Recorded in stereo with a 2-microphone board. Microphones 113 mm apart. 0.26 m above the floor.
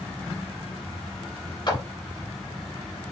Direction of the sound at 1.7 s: 45° left (ahead or behind).